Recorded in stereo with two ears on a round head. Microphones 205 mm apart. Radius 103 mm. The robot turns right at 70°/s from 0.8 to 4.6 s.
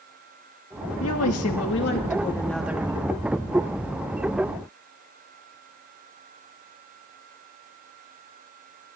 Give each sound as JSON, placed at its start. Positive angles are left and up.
{"t": 1.0, "sound": "a woman speaking", "azimuth_deg": 70, "distance_m": 2.0}